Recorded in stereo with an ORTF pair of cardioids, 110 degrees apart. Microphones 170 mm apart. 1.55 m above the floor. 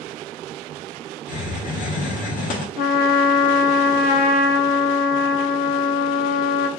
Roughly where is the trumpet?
Ahead left.